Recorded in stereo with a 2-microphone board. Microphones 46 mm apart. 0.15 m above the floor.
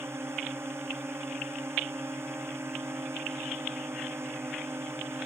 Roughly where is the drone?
Right.